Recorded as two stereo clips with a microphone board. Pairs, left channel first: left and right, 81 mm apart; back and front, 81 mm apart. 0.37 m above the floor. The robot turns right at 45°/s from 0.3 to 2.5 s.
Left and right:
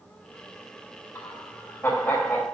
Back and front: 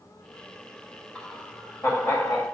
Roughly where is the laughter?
Left.